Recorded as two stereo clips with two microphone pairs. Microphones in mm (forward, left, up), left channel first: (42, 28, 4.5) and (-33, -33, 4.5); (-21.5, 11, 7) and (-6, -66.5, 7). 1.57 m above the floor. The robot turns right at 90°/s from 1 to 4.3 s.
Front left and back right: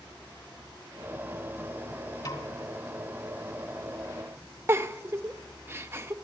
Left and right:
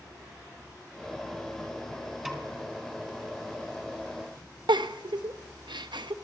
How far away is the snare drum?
About 2.5 m.